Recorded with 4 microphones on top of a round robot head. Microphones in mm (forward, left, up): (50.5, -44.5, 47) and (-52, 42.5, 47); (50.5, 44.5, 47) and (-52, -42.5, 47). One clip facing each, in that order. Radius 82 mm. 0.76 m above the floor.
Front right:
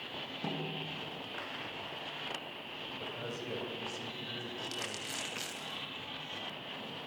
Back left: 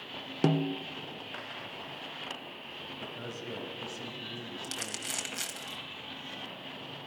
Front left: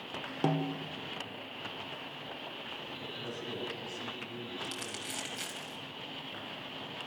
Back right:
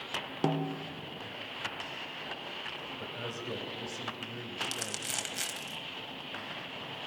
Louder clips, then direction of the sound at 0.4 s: Back left 12 dB, even; 135° left.